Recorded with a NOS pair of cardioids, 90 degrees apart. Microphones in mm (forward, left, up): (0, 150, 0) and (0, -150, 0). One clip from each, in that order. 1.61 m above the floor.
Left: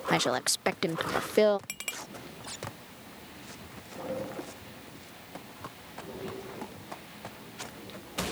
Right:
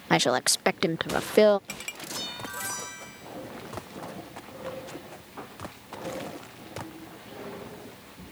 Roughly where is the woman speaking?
Ahead.